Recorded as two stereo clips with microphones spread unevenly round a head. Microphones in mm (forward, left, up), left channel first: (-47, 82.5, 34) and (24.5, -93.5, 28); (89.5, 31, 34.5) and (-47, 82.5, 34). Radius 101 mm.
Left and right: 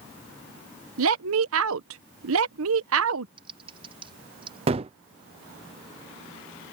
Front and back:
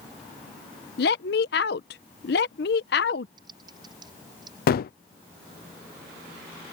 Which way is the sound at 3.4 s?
130° right.